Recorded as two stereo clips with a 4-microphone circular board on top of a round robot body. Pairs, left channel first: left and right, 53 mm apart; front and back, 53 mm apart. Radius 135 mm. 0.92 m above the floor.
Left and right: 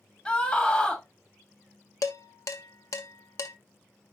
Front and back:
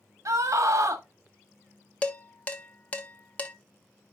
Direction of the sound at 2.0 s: 65° left.